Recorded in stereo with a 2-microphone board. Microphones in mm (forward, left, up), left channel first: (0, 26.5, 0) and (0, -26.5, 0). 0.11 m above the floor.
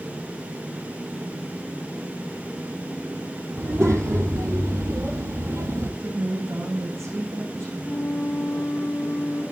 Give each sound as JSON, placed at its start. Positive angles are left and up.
{"t": 3.6, "sound": "a child speaking", "side_deg": -60, "distance_m": 3.0}
{"t": 6.0, "sound": "a woman speaking", "side_deg": -65, "distance_m": 8.0}
{"t": 7.8, "sound": "a flute", "side_deg": 35, "distance_m": 3.0}